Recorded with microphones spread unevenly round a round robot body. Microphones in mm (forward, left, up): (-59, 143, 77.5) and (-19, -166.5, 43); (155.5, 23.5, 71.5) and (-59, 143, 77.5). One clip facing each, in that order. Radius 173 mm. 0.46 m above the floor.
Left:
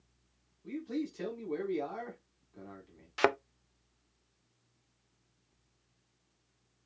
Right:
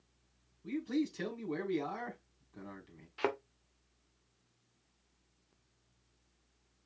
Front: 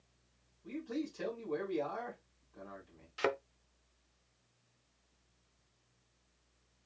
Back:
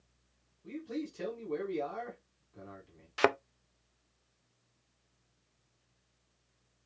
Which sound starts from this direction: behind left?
A thud, at 3.2 s.